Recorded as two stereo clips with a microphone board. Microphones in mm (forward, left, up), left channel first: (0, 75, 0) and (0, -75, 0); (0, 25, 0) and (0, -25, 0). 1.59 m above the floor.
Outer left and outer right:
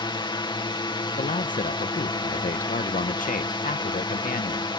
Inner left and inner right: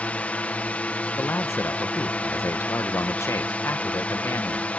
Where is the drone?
30° left (ahead or behind).